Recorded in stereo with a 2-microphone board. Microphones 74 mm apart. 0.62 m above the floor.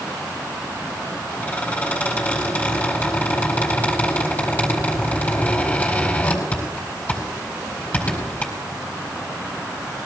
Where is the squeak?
25° left (ahead or behind), 4.5 m.